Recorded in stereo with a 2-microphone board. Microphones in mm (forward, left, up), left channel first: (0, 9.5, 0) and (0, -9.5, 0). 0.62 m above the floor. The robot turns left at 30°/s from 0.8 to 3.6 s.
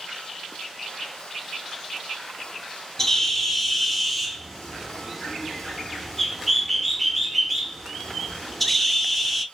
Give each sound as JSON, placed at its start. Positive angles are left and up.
{"t": 3.0, "sound": "a bird", "side_deg": 20, "distance_m": 0.6}